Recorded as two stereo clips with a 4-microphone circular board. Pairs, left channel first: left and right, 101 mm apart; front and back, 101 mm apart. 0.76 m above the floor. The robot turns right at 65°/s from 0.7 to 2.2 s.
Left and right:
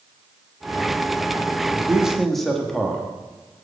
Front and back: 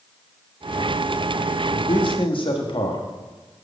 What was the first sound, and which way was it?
A man speaking, 30° right.